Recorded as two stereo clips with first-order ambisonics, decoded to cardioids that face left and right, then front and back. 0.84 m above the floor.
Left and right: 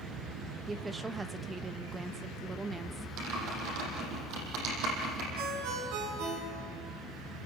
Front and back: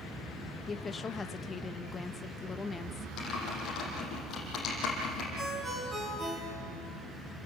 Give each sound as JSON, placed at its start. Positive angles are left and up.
{"t": 0.7, "sound": "a woman speaking", "azimuth_deg": -40, "distance_m": 0.9}
{"t": 3.2, "sound": "typing on a keyboard", "azimuth_deg": -55, "distance_m": 7.0}
{"t": 5.4, "sound": "a ringtone", "azimuth_deg": -100, "distance_m": 6.0}